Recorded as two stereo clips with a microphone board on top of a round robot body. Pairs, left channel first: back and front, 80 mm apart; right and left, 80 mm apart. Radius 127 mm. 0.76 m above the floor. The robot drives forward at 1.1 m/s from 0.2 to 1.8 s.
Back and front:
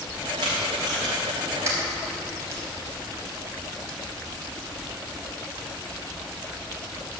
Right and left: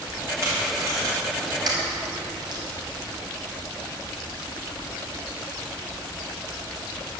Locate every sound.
0.4 s tape being pulled: 35° left, 3 m; by 2.6 s 55° left, 2 m